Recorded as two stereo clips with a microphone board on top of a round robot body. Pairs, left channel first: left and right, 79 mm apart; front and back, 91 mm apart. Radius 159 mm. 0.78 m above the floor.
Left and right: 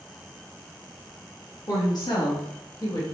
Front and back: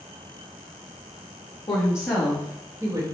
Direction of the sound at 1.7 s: 45° left.